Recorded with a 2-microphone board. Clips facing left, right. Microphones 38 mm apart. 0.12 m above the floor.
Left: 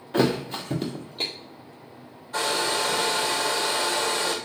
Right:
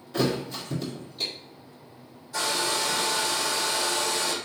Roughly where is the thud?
Left.